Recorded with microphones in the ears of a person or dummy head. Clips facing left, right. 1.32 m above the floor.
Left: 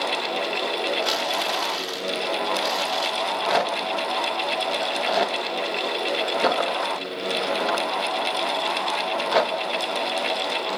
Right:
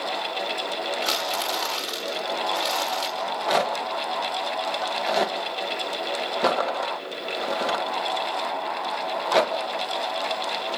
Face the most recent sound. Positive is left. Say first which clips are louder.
# even
turn(degrees=5)  # may be behind; listen again after turning